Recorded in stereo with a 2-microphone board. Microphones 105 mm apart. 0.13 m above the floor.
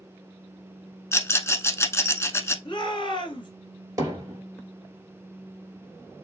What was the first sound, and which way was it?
A rattle, 25° left (ahead or behind).